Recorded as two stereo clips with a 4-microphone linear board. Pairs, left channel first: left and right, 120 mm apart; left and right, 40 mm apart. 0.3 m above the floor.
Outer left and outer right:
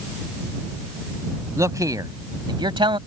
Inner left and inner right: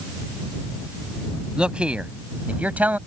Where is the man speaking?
25° right (ahead or behind); by 3.0 s 45° right (ahead or behind).